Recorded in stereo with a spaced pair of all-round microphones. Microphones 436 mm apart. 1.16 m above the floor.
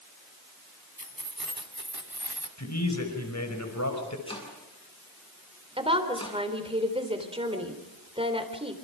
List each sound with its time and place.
1.0 s keys jangling: 50° right (ahead or behind), 3 m; by 2.5 s 65° right (ahead or behind), 2.5 m
2.6 s a man speaking: 40° left (ahead or behind), 5.5 m
4.3 s chopping: 10° left (ahead or behind), 7.5 m
5.8 s a woman speaking: 10° right (ahead or behind), 3.5 m